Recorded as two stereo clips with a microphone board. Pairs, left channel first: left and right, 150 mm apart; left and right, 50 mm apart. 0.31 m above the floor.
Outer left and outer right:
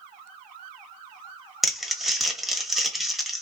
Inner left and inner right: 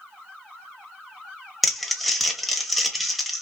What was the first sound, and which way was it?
Crumpling, centre (ahead or behind).